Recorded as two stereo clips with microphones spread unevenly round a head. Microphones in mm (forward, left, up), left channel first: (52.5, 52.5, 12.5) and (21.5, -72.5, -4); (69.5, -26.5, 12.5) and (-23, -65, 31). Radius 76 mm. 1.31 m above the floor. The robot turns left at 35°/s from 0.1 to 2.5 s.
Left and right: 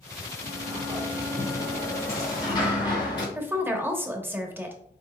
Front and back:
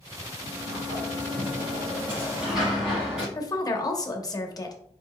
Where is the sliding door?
165° right, 1.9 m; by 3.2 s 125° left, 1.9 m.